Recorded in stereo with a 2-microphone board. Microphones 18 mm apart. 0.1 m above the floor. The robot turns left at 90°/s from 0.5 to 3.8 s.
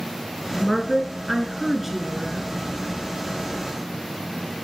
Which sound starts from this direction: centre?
A woman speaking, at 0.6 s.